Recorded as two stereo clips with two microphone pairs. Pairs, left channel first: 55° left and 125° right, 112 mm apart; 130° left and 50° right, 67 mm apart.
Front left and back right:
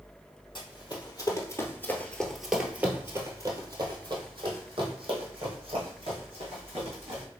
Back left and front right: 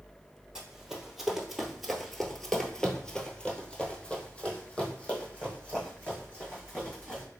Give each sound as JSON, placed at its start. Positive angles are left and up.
{"t": 0.6, "sound": "running footsteps", "azimuth_deg": 30, "distance_m": 1.3}